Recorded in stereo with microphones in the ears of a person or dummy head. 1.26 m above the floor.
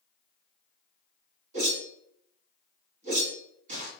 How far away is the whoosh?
About 1.3 m.